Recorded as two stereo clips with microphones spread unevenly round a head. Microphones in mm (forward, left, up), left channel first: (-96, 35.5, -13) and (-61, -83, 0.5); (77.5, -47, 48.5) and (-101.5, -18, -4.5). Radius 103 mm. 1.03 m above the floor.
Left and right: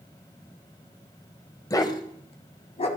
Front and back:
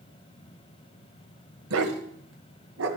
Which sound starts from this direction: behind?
A dog barking, at 1.7 s.